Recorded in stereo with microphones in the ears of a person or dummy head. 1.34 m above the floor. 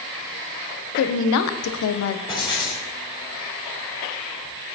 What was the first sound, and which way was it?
A woman speaking, 80° left.